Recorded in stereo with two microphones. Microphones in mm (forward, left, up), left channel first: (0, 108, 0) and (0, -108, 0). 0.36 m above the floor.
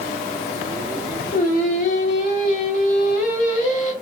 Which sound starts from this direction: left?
Singing, at 1.3 s.